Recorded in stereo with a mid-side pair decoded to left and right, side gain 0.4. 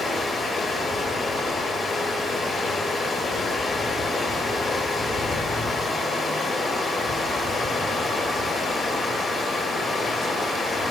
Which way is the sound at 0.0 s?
60° left.